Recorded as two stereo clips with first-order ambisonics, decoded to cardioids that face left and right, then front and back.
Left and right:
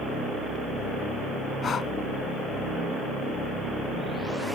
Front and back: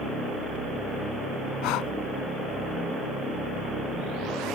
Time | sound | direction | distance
1.6 | breathing | 25° left | ?